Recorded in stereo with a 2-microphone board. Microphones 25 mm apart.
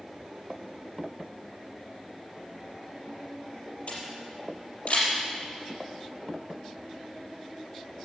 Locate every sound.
3.9 s a camera shutter: 60° left (ahead or behind), 5 m